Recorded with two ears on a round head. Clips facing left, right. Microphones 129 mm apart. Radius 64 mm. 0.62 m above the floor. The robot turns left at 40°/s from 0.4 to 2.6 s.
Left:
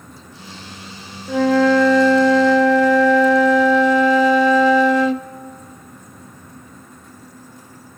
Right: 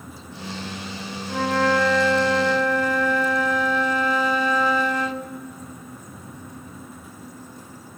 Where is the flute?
115° left, 0.7 m; by 5.3 s 60° left, 0.7 m.